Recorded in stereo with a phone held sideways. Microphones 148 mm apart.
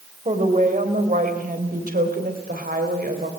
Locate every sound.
0.2 s a woman speaking: 55° right (ahead or behind), 4.5 m; by 3.3 s 75° right (ahead or behind), 4 m